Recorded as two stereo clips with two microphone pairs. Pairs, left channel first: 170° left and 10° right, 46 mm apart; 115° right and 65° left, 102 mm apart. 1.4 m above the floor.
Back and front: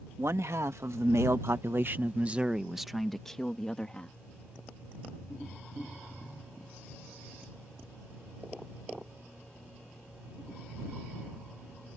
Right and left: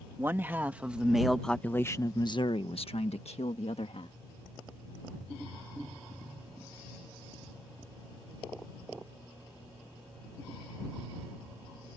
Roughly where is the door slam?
No door slam in this recording.